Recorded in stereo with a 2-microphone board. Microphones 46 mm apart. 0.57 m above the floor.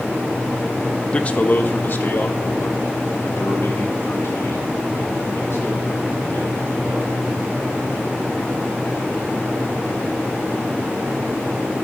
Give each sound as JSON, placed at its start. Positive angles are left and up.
{"t": 1.1, "sound": "a man speaking", "side_deg": 20, "distance_m": 0.7}